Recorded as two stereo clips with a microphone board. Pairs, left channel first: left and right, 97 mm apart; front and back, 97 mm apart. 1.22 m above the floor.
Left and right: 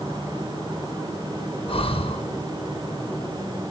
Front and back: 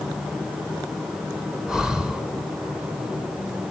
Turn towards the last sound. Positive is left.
turn(degrees=95)